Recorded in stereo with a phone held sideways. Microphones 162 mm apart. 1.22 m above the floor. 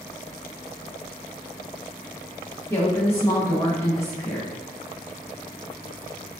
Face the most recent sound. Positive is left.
turn(degrees=15)  # may be behind; listen again after turning